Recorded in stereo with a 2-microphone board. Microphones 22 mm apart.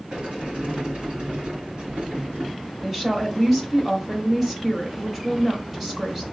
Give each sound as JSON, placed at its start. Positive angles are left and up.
{"t": 0.1, "sound": "a sliding door", "side_deg": -55, "distance_m": 1.9}
{"t": 2.8, "sound": "a woman speaking", "side_deg": -10, "distance_m": 1.4}